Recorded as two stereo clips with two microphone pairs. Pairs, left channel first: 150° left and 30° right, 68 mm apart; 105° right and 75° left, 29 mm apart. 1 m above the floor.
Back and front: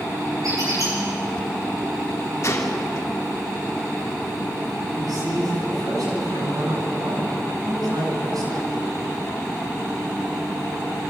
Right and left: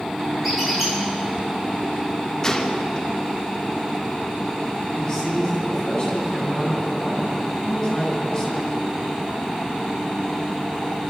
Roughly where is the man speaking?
Ahead right.